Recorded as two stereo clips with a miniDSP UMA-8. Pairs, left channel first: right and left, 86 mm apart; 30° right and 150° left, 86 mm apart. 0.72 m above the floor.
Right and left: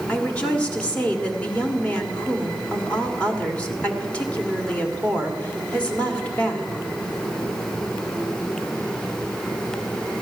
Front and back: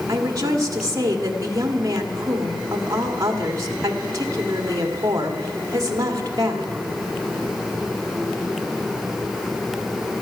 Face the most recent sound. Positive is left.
turn(degrees=-160)